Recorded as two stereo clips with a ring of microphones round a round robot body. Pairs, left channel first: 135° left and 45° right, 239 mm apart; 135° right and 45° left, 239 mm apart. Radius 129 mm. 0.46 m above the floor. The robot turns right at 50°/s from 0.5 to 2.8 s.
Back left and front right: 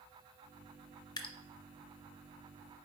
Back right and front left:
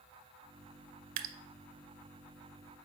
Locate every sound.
1.2 s dripping: 60° left, 0.5 m; by 1.4 s 70° left, 0.5 m